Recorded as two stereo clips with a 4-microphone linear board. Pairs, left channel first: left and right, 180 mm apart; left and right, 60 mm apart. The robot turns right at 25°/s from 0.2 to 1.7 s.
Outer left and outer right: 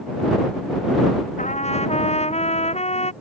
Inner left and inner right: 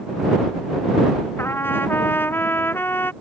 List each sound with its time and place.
1.4 s a trumpet: 45° left (ahead or behind); by 3.1 s 35° left (ahead or behind)